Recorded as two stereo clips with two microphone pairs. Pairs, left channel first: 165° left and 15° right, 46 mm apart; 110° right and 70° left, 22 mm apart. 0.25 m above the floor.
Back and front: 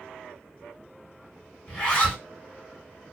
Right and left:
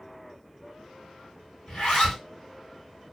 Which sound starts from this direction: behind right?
A zipper, at 1.7 s.